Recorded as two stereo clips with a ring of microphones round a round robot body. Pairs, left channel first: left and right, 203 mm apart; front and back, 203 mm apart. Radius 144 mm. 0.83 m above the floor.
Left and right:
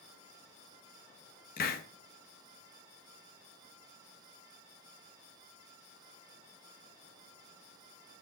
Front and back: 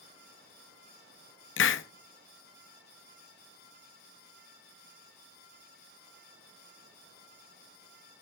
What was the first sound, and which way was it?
A hiss, 30° left.